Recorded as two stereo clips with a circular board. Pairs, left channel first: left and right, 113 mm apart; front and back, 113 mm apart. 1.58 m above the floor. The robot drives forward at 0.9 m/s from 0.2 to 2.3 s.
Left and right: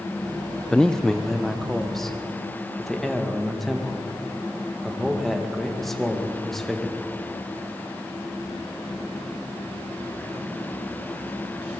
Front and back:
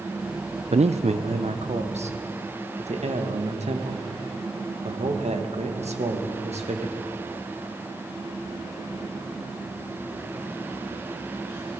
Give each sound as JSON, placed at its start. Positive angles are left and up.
{"t": 0.7, "sound": "a man speaking", "azimuth_deg": 175, "distance_m": 0.7}